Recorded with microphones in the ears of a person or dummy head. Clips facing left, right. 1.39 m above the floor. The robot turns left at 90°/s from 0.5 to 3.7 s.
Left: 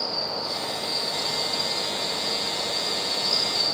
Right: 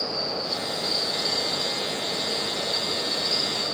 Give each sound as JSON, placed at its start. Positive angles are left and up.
{"t": 0.0, "sound": "an insect", "azimuth_deg": 0, "distance_m": 4.5}